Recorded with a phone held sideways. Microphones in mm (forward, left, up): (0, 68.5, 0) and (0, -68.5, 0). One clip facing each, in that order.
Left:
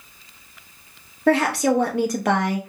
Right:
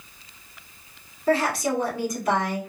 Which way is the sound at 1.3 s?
75° left (ahead or behind).